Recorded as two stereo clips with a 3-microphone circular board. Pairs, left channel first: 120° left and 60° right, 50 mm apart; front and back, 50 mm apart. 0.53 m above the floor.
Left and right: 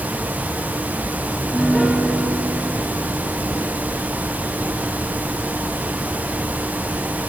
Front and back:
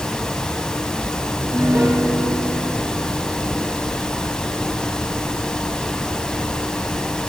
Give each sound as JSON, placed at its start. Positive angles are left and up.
{"t": 1.3, "sound": "a piano", "azimuth_deg": -145, "distance_m": 5.0}